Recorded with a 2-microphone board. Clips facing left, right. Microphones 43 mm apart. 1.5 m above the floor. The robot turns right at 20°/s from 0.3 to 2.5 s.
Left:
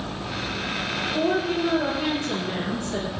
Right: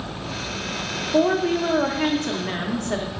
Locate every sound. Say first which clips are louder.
1.1 s a woman speaking: right 5 dB; 85° right, 1.0 m; by 3.2 s 55° right (ahead or behind), 1.0 m